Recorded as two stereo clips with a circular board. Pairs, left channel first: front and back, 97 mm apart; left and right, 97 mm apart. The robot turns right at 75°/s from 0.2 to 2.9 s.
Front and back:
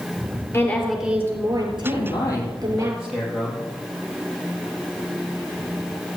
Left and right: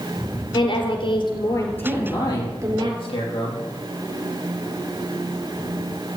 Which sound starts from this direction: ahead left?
A woman speaking, at 0.5 s.